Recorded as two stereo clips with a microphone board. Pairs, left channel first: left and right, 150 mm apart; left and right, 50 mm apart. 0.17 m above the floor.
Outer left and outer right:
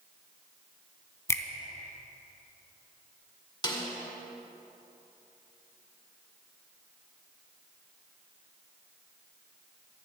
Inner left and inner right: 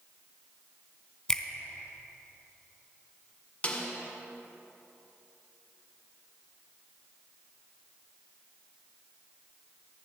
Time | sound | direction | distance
1.3 | a finger snap | 20° left (ahead or behind) | 1.0 m
3.6 | a snare drum | 30° left (ahead or behind) | 1.8 m